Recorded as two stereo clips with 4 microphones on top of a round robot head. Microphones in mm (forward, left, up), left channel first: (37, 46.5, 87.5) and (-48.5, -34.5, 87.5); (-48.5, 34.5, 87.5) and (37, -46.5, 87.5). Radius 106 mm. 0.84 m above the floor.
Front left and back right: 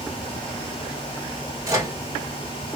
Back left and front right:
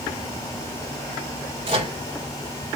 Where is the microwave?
75° right, 2.5 m.